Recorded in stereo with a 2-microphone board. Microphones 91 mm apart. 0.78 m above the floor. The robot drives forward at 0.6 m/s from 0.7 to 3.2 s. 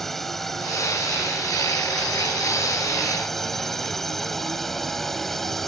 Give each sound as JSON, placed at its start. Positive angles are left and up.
{"t": 0.0, "sound": "a drone", "side_deg": 0}